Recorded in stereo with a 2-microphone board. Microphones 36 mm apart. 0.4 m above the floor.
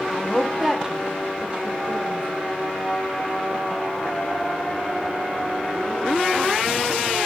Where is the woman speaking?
10° left (ahead or behind), 0.8 m; by 2.3 s 45° right (ahead or behind), 1.6 m.